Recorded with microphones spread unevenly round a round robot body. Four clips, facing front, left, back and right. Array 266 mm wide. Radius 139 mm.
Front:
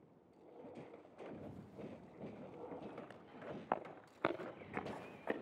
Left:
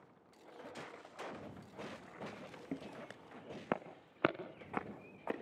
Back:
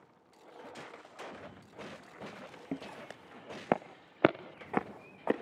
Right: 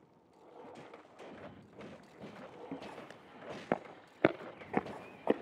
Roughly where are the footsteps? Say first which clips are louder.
Left 1 dB, back 7 dB; behind.